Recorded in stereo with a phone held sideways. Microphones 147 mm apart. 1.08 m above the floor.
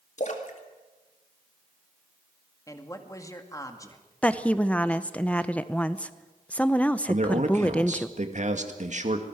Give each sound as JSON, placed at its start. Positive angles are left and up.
{"t": 0.2, "sound": "a splash", "side_deg": 55, "distance_m": 2.5}
{"t": 2.7, "sound": "a man speaking", "side_deg": 20, "distance_m": 2.0}
{"t": 4.2, "sound": "a woman speaking", "side_deg": 10, "distance_m": 0.8}
{"t": 7.1, "sound": "a man speaking", "side_deg": -55, "distance_m": 2.0}